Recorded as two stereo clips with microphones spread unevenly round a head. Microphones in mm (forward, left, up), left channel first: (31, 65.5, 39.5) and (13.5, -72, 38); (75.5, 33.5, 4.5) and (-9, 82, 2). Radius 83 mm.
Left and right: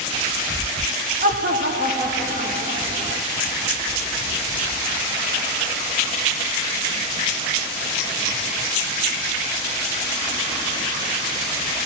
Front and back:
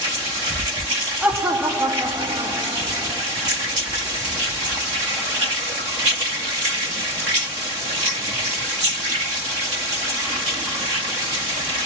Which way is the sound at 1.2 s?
125° right.